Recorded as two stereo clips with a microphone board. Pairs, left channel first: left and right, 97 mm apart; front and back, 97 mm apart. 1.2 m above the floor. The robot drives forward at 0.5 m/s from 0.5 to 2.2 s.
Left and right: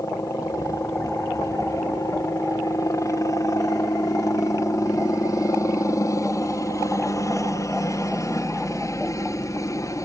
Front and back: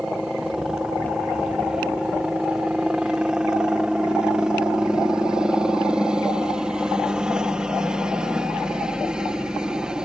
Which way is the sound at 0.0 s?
100° left.